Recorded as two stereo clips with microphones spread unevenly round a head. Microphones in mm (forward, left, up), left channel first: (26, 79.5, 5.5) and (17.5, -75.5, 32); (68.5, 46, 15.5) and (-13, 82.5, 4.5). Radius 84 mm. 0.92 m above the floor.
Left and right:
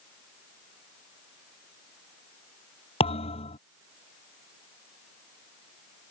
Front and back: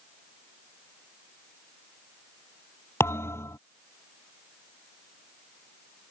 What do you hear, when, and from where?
3.0 s a thud: 30° left